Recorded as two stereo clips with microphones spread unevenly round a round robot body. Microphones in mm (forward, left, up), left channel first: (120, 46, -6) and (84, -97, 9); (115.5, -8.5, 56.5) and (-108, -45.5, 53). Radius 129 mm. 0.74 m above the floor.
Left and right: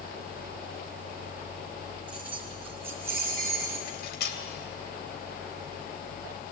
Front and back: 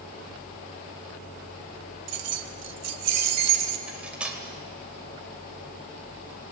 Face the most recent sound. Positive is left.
turn(degrees=105)